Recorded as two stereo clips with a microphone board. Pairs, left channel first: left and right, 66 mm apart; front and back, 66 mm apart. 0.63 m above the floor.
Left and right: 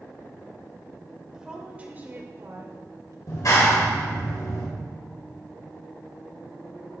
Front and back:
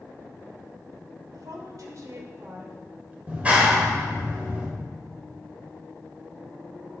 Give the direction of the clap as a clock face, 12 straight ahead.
8 o'clock.